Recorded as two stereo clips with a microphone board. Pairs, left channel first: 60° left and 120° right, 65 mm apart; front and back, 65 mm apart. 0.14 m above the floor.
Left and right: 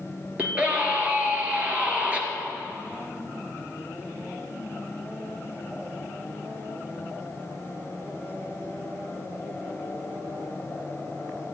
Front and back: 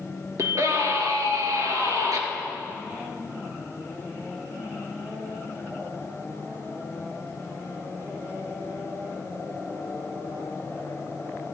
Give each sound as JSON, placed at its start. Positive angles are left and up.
{"t": 0.4, "sound": "a scream", "azimuth_deg": 175, "distance_m": 2.5}